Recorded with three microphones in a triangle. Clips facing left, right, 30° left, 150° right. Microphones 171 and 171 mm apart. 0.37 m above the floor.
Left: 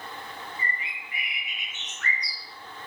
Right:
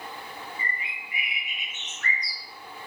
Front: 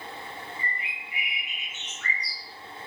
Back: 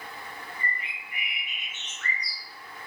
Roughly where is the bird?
Ahead right.